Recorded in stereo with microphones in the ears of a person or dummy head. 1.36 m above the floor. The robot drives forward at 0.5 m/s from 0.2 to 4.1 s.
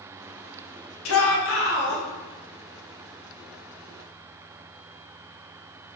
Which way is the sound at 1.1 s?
65° left (ahead or behind).